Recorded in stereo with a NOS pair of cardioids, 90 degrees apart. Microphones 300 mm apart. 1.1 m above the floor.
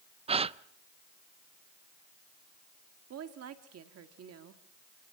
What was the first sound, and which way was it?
A gasp, 20° right.